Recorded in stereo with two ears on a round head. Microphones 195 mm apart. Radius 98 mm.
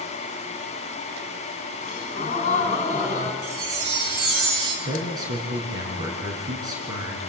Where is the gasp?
40° left (ahead or behind), 2.5 m.